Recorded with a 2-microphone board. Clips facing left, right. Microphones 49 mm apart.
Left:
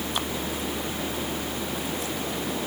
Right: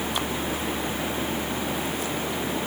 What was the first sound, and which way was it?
Only background noise.